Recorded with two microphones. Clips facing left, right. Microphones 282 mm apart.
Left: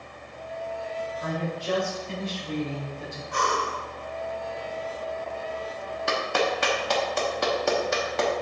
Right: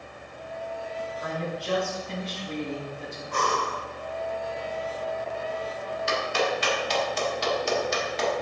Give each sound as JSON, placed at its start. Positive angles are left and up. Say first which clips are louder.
{"t": 1.2, "sound": "a woman speaking", "louder": "left 2 dB", "side_deg": 25, "distance_m": 3.0}
{"t": 3.3, "sound": "breathing", "louder": "even", "side_deg": -45, "distance_m": 0.8}
{"t": 6.1, "sound": "a clap", "louder": "left 1 dB", "side_deg": 60, "distance_m": 1.0}